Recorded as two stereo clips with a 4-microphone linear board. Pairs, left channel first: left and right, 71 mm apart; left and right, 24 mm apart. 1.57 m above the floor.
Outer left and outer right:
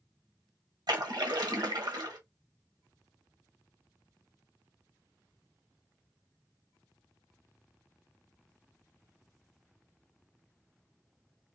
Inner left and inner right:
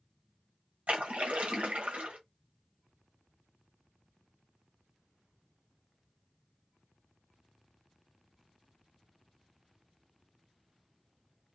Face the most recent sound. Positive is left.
turn(degrees=-80)